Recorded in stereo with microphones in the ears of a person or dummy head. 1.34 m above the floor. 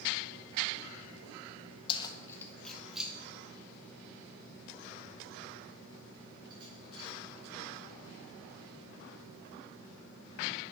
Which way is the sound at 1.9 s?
30° left (ahead or behind).